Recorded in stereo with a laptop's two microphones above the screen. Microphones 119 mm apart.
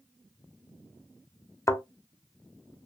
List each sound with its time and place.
1.7 s a thud: 25° left (ahead or behind), 0.8 m